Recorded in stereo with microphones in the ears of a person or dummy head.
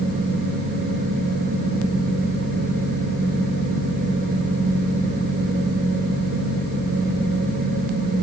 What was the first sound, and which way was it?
Only background noise.